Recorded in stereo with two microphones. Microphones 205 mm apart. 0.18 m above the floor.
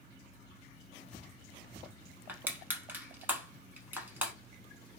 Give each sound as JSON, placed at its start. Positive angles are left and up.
{"t": 2.3, "sound": "crushing", "side_deg": -10, "distance_m": 0.7}